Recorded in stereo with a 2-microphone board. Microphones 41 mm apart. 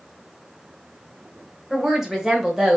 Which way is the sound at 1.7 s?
10° right (ahead or behind).